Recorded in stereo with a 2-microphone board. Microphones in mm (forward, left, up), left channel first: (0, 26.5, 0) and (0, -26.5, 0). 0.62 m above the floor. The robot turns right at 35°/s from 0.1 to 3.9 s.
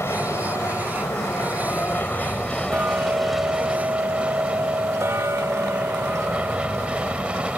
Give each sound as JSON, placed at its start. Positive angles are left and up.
{"t": 0.0, "sound": "an aircraft", "azimuth_deg": 70}
{"t": 2.7, "sound": "ticking", "azimuth_deg": -140}